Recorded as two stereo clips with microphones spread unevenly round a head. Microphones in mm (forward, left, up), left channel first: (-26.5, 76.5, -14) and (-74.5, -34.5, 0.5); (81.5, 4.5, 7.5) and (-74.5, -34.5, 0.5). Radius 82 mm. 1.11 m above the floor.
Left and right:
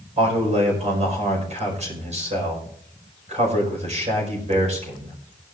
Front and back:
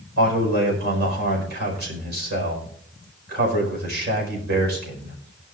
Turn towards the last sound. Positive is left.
turn(degrees=-140)